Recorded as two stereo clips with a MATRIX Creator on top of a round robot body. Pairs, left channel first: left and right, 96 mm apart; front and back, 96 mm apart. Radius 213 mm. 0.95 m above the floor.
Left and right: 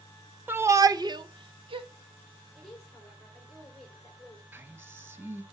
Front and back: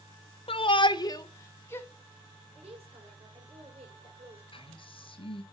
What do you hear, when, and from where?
0.5 s a shout: 20° right, 1.0 m; by 1.9 s 70° right, 1.6 m
2.5 s a woman speaking: 175° left, 5.5 m
4.5 s a man speaking: 25° right, 2.5 m